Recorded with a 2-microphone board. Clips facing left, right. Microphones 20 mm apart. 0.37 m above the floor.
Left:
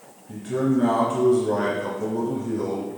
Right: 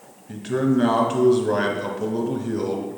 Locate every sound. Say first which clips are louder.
0.3 s a man speaking: right 2 dB; 55° right (ahead or behind), 2.5 m